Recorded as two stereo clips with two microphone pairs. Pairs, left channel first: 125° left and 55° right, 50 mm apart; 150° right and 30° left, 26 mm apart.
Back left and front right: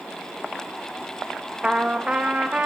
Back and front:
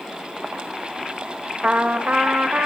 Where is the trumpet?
10° left, 2.5 m.